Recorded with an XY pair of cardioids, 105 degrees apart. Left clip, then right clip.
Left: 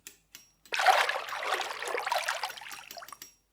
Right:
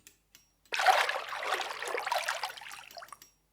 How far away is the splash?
About 0.6 m.